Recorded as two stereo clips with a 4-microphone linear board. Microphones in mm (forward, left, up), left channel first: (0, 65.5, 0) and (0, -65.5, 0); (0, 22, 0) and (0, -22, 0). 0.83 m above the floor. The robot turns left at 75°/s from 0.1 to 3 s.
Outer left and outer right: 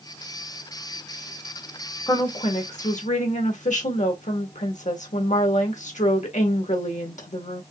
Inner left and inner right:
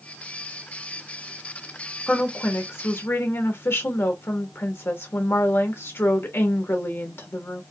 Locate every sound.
2.1 s a woman speaking: 155° left, 1.3 m; by 7.6 s 85° left, 1.3 m